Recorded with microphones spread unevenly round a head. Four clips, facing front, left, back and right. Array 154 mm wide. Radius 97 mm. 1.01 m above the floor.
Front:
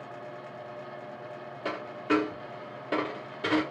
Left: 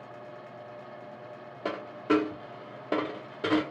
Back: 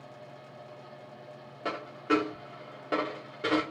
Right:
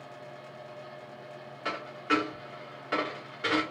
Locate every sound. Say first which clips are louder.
1.6 s a dropped coin: left 3 dB, even; 100° left, 0.8 m